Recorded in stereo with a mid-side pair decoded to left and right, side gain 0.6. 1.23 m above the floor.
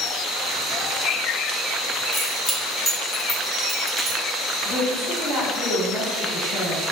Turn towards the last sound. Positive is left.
turn(degrees=45)